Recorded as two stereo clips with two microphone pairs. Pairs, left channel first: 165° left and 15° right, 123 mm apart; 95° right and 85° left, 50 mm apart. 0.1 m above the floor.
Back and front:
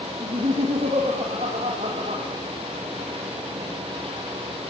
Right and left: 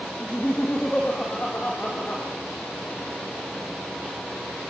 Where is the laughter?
30° right, 5 m.